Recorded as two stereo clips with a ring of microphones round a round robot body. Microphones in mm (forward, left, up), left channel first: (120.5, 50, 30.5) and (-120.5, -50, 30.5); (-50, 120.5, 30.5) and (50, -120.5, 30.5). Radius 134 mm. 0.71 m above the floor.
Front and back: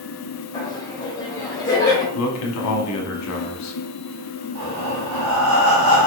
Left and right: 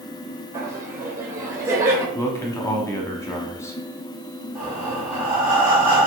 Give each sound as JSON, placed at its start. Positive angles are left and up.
{"t": 0.5, "sound": "laughter", "azimuth_deg": -10, "distance_m": 0.9}
{"t": 2.1, "sound": "a man speaking", "azimuth_deg": 35, "distance_m": 1.0}
{"t": 4.5, "sound": "breathing", "azimuth_deg": -150, "distance_m": 2.5}